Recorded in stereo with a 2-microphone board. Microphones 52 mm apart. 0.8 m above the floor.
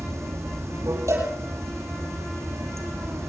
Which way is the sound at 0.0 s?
70° right (ahead or behind).